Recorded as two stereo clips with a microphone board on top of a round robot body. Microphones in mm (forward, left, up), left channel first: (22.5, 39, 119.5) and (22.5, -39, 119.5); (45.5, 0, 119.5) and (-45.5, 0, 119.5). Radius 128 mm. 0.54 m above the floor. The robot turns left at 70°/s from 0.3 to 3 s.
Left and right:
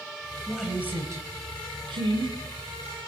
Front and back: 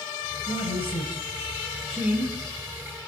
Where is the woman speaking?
5° left, 4 m; by 2.4 s 125° right, 4 m.